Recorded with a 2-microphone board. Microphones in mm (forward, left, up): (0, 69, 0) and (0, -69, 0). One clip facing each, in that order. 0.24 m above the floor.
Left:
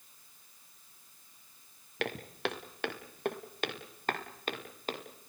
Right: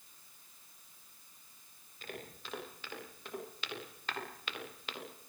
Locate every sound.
2.0 s footsteps: 80° left, 5 m; by 5.0 s 40° left (ahead or behind), 7 m